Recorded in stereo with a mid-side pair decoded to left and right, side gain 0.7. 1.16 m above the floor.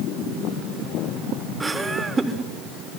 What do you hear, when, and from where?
1.6 s laughter: 10° right, 3.5 m